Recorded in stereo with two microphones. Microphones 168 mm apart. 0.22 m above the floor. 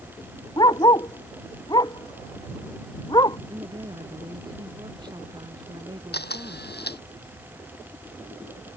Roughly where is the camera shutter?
Left.